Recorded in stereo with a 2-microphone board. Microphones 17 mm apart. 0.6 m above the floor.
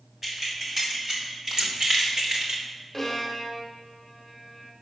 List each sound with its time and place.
0.2 s keys jangling: 20° right (ahead or behind), 3 m; by 2.6 s 50° right (ahead or behind), 1.4 m
1.6 s scissors: 50° right (ahead or behind), 0.9 m
2.9 s a violin: 10° left (ahead or behind), 1.3 m